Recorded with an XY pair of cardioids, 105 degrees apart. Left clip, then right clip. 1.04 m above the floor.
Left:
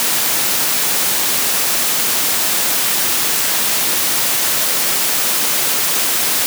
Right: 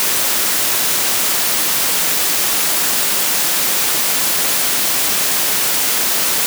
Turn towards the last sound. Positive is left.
No sound to turn to.